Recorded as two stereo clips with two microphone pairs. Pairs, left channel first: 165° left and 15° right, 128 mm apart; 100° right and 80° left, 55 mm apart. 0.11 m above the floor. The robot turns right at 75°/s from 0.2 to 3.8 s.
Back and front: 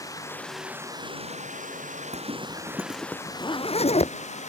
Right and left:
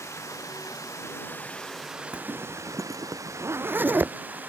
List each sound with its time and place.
0.0 s running water: 130° right; by 4.5 s 140° left
2.1 s a zipper: 5° left; by 4.1 s 130° left